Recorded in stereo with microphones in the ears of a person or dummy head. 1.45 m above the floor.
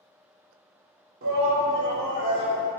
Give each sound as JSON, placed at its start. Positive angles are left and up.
{"t": 1.2, "sound": "a shout", "side_deg": -55, "distance_m": 0.7}